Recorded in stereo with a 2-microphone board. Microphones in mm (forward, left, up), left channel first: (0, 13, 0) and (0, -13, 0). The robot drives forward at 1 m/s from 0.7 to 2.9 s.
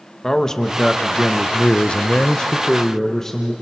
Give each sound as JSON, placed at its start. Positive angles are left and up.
{"t": 0.2, "sound": "a man speaking", "side_deg": 20, "distance_m": 1.4}